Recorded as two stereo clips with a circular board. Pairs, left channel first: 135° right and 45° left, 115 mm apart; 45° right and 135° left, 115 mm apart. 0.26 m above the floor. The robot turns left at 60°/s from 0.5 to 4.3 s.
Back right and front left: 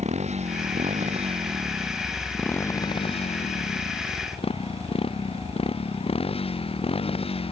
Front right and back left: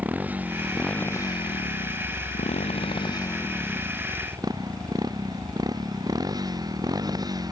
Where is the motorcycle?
60° left; by 7.5 s 170° right.